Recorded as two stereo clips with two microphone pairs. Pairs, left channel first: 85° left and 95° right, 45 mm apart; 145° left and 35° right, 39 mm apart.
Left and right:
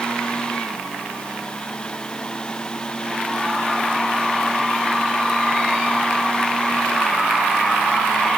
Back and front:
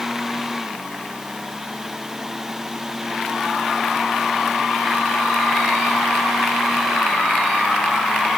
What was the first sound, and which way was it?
Only background noise.